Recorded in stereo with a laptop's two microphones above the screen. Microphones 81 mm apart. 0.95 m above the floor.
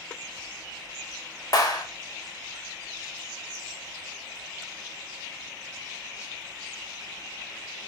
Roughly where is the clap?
Left.